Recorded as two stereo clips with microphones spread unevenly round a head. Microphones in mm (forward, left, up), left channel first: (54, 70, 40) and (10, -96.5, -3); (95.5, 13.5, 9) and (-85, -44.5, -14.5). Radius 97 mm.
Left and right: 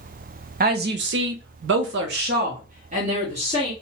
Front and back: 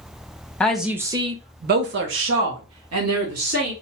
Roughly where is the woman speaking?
Ahead right.